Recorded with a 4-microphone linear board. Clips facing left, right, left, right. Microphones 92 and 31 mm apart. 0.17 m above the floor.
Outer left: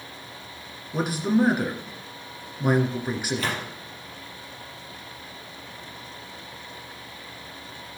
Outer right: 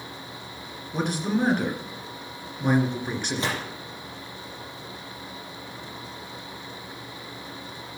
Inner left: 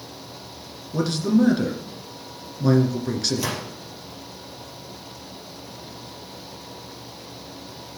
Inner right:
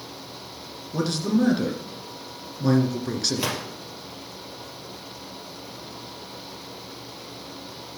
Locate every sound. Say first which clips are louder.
0.9 s a man speaking: outer left 3 dB, inner left 3 dB; 5° left (ahead or behind), 2 m
3.4 s a gunshot: even, even; 25° right (ahead or behind), 3.5 m